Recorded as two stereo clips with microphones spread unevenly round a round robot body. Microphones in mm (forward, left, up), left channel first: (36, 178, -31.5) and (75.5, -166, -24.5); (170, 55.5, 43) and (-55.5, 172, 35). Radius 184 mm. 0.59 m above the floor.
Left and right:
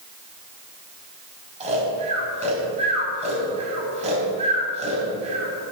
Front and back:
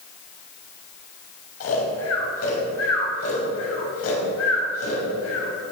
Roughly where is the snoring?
Ahead.